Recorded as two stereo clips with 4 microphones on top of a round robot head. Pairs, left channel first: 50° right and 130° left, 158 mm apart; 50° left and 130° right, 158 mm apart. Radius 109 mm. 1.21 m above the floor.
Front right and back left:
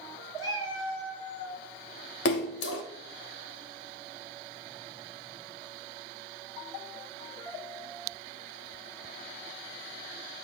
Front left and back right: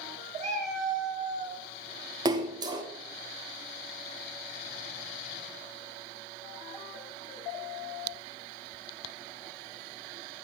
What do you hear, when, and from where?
0.4 s a cat meowing: 60° right, 3 m
2.2 s a splash: 65° right, 1.1 m